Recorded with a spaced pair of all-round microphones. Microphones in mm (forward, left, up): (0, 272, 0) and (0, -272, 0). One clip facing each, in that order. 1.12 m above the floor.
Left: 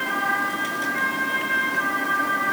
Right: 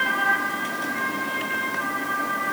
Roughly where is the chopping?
I don't hear chopping.